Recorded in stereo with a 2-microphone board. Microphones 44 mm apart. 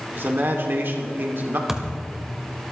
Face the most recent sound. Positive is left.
turn(degrees=-10)  # may be behind; listen again after turning